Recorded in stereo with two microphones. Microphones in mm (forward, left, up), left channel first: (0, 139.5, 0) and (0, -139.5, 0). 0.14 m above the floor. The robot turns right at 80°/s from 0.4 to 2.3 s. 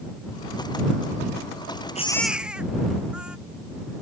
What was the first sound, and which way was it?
A baby crying, 25° left (ahead or behind).